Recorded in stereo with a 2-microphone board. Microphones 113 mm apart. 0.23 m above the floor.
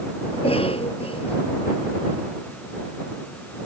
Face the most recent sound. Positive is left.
turn(degrees=55)  # may be behind; listen again after turning